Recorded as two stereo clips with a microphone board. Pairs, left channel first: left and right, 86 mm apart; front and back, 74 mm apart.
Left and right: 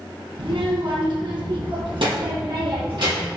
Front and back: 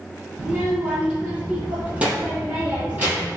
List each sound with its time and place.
0.4 s a child speaking: 100° right, 3 m; by 3.3 s 115° right, 4.5 m